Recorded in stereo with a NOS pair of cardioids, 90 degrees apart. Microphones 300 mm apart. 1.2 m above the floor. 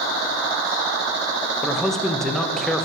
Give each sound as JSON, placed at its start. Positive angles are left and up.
{"t": 1.6, "sound": "a man speaking", "azimuth_deg": 0, "distance_m": 0.7}